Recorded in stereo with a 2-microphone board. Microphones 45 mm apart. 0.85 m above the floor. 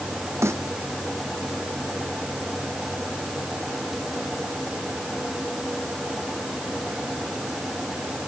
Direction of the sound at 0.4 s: 85° right.